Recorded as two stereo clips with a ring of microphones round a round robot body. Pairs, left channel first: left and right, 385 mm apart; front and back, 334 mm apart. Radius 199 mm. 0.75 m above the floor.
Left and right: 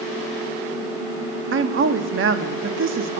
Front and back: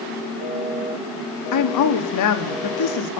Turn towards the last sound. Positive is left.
turn(degrees=-30)